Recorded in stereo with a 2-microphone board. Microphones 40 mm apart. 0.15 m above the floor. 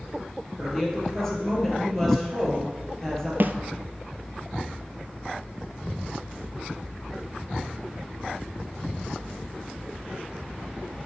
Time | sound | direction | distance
0.6 | a woman speaking | 10° left (ahead or behind) | 3 m
3.4 | a snare drum | 60° right (ahead or behind) | 0.6 m